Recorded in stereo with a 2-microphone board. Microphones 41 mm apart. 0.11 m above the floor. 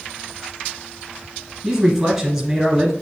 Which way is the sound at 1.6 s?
10° right (ahead or behind).